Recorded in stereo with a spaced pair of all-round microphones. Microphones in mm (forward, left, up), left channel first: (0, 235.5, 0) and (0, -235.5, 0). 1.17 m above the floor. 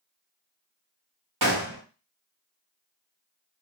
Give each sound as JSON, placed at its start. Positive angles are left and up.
{"t": 1.4, "sound": "a gunshot", "side_deg": -45, "distance_m": 0.9}